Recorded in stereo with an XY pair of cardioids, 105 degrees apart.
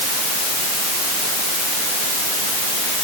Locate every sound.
Only background noise.